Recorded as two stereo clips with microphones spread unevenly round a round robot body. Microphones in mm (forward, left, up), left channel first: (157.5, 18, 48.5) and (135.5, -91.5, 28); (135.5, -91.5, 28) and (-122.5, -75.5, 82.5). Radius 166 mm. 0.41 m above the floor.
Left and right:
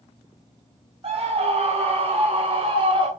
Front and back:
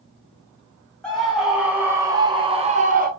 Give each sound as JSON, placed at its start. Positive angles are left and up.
{"t": 1.0, "sound": "a scream", "azimuth_deg": -85, "distance_m": 2.5}